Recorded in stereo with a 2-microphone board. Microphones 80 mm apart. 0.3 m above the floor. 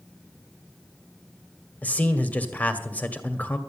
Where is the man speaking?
20° left (ahead or behind), 1.4 m.